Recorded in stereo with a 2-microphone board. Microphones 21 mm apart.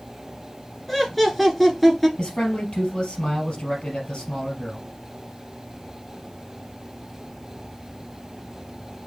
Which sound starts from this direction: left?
A man speaking, at 2.2 s.